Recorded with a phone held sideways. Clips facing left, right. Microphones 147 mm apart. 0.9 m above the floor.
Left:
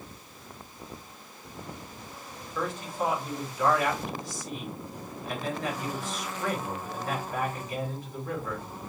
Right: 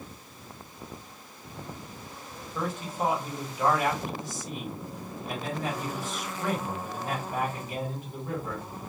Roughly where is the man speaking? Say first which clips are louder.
Even; right.